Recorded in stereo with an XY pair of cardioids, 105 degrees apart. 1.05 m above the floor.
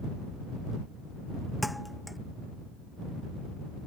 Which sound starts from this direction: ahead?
A thud, at 1.6 s.